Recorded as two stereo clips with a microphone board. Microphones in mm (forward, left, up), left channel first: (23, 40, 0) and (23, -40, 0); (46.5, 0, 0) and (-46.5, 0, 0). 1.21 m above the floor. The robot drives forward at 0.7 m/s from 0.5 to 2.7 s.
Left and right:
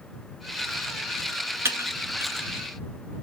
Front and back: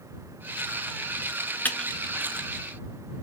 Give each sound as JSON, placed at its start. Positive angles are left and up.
{"t": 1.6, "sound": "typing on a keyboard", "azimuth_deg": -60, "distance_m": 0.6}